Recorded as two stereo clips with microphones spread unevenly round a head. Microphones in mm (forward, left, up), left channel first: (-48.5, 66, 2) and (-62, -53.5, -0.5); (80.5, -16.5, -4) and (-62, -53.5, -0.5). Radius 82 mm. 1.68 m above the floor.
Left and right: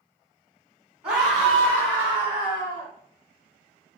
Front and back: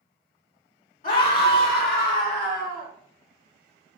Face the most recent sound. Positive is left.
turn(degrees=20)